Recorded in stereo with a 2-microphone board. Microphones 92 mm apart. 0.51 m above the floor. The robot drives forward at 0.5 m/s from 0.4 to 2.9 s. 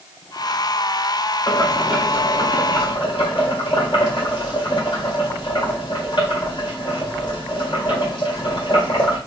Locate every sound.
1.5 s boiling: 45° left (ahead or behind), 2 m; by 9.2 s 55° left (ahead or behind), 1.8 m